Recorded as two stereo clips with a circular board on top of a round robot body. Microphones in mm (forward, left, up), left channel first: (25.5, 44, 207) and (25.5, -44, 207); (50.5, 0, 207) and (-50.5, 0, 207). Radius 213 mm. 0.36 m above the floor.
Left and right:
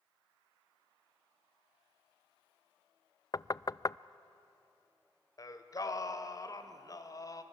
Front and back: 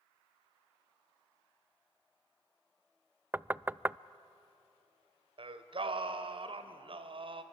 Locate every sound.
3.3 s knocking: 115° left, 0.5 m
5.4 s singing: 145° left, 1.3 m